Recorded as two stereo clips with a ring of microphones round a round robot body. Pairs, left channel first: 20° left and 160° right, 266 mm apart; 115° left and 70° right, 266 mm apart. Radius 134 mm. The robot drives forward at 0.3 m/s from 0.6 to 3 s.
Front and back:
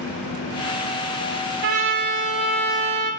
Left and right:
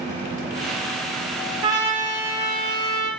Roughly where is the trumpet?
Behind right.